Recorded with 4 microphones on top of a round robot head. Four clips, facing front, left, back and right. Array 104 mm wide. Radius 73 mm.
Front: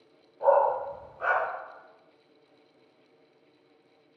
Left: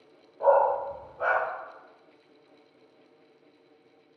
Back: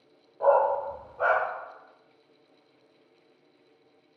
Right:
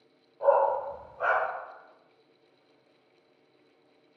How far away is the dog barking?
About 0.5 m.